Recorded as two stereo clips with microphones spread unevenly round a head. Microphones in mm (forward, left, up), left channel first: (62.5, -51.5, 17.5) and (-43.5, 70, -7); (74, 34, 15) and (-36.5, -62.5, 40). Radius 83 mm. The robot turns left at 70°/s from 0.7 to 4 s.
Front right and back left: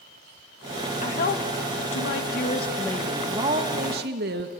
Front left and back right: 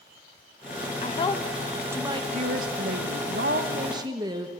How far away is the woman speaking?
About 1.8 m.